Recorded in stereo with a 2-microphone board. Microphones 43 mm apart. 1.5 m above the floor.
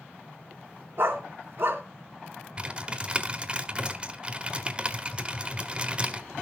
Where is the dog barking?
50° right (ahead or behind), 4 m.